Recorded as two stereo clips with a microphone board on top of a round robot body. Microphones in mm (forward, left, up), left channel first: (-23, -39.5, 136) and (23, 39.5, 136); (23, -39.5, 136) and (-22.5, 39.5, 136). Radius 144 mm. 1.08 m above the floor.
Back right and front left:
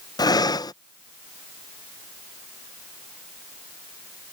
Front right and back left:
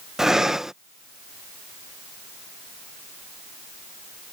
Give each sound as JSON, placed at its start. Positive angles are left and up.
{"t": 0.2, "sound": "breathing", "azimuth_deg": -155}